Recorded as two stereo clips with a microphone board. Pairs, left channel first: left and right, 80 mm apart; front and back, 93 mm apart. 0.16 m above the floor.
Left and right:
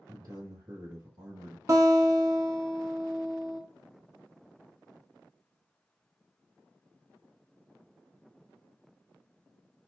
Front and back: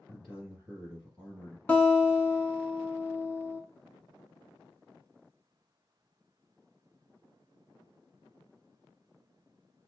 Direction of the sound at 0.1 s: 115° right.